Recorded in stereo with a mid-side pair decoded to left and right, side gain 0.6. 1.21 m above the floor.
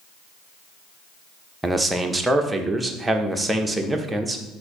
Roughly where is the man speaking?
Ahead.